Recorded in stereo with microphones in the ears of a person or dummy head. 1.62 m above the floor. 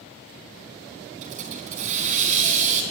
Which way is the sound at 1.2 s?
40° right (ahead or behind).